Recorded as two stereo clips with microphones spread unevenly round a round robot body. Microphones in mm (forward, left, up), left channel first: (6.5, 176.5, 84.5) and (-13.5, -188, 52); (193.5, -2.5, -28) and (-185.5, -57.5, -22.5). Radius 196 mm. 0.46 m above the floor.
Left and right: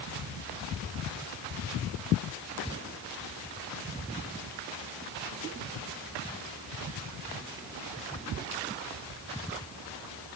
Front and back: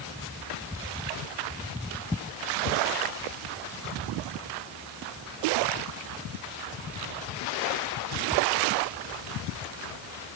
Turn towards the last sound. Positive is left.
No sound to turn to.